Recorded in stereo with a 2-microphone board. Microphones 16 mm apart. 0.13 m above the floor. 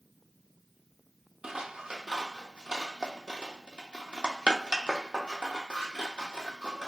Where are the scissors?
75° right (ahead or behind), 0.7 m.